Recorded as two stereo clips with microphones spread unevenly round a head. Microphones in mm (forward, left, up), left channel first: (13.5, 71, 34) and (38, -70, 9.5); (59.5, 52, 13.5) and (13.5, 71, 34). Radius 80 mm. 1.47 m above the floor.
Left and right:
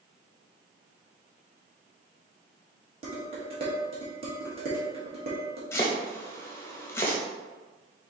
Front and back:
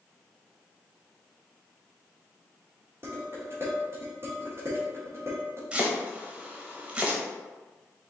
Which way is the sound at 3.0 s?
140° right.